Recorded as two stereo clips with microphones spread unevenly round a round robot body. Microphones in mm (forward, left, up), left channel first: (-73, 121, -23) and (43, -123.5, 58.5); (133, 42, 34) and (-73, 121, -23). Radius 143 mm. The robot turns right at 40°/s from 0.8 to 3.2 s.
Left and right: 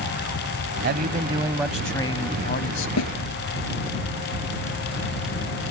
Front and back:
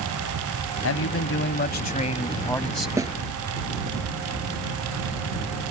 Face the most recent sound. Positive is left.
turn(degrees=90)